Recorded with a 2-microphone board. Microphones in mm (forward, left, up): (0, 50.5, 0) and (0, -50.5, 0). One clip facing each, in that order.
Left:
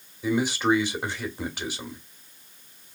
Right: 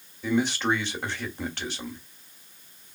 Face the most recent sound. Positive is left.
turn(degrees=10)  # may be behind; listen again after turning